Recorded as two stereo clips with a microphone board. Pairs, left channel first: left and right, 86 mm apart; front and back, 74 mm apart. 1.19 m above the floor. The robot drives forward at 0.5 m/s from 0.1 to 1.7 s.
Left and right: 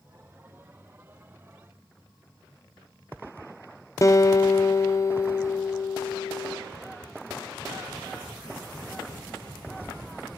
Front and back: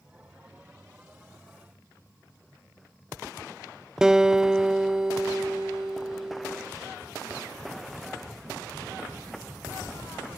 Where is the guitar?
105° left, 0.6 m.